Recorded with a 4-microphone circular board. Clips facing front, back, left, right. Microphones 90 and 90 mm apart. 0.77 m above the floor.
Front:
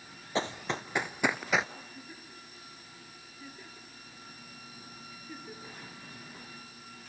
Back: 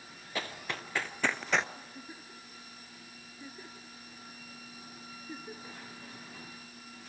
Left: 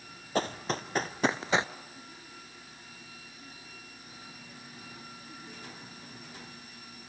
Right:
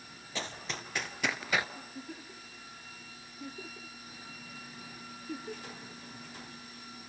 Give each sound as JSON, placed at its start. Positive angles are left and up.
{"t": 0.3, "sound": "running footsteps", "azimuth_deg": 60, "distance_m": 1.3}
{"t": 1.8, "sound": "a giggle", "azimuth_deg": -105, "distance_m": 3.0}